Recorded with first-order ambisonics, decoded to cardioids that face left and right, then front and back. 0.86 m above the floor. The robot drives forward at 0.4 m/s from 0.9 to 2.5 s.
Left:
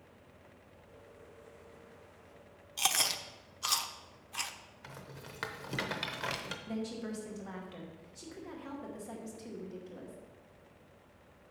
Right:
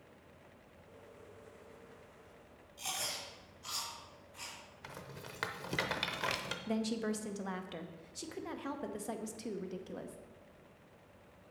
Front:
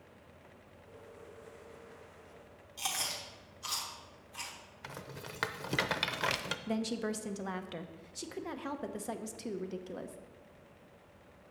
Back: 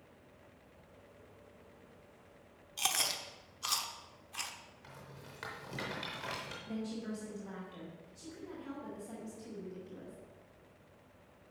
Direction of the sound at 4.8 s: 10° right.